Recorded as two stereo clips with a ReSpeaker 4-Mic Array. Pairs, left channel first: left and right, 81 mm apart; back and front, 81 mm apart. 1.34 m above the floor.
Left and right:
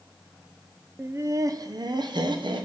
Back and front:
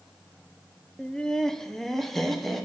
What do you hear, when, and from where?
1.0 s laughter: 115° right, 0.5 m; by 2.6 s 90° right, 1.2 m